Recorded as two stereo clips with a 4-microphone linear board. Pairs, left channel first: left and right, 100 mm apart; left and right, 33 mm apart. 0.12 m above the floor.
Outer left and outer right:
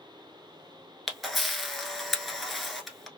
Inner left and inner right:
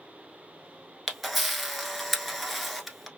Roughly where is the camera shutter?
Centre.